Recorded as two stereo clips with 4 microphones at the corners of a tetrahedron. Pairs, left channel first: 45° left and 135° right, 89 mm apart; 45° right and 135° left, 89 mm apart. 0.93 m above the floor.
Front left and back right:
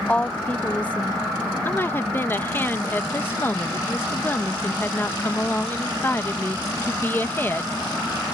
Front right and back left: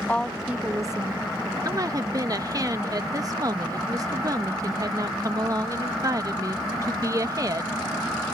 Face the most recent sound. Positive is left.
turn(degrees=105)